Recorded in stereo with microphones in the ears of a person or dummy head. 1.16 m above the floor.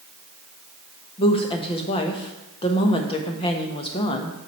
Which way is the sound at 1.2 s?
25° left (ahead or behind).